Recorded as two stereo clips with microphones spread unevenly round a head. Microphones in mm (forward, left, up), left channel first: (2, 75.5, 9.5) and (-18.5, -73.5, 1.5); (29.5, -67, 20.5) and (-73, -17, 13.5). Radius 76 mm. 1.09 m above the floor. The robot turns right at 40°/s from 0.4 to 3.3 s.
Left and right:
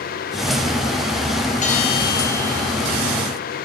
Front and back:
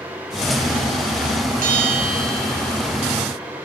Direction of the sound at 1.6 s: 125° left.